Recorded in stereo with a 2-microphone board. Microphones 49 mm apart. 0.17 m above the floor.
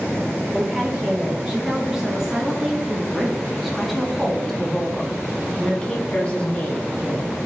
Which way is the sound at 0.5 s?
10° right (ahead or behind).